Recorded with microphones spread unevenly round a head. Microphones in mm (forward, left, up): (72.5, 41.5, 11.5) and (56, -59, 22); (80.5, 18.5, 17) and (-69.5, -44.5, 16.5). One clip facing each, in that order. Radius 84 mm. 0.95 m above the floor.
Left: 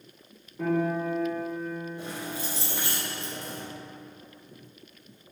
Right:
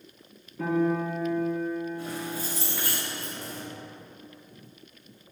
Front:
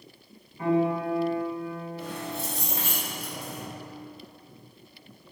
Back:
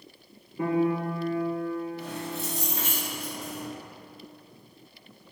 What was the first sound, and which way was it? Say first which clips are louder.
A piano: right 1 dB, front 1 dB; 165° left.